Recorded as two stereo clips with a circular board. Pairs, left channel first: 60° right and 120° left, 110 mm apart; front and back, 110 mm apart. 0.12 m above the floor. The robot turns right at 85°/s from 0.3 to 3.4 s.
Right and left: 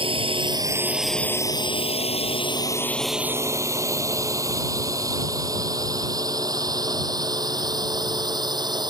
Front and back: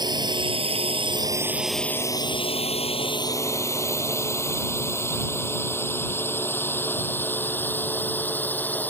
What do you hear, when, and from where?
0.0 s a drone: 140° left; by 8.9 s 75° left